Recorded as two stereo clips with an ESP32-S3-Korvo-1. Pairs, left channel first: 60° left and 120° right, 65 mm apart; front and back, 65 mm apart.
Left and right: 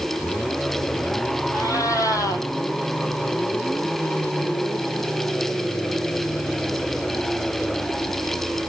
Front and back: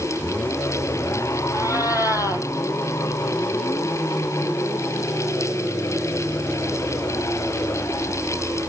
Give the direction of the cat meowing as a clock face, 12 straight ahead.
11 o'clock.